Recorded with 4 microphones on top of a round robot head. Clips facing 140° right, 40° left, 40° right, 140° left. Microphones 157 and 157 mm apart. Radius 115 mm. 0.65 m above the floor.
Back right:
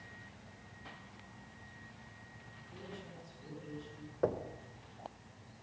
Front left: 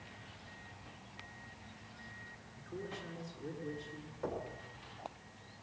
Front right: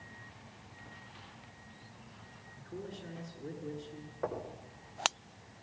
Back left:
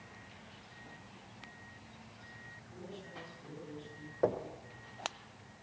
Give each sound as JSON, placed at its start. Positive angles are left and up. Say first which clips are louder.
{"t": 2.6, "sound": "a man speaking", "louder": "front left 5 dB, front right 5 dB", "azimuth_deg": -5, "distance_m": 8.0}
{"t": 4.2, "sound": "knocking", "louder": "back right 6 dB, back left 6 dB", "azimuth_deg": -165, "distance_m": 2.5}